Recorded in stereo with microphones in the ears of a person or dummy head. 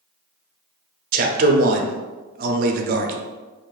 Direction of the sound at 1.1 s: 45° right (ahead or behind).